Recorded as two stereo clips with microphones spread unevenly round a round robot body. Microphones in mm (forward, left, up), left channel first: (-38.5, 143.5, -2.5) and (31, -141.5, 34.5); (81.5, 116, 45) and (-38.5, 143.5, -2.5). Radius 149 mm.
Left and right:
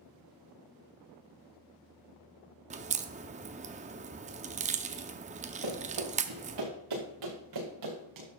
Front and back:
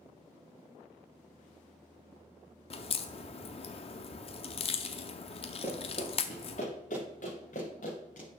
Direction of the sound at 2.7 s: 15° right.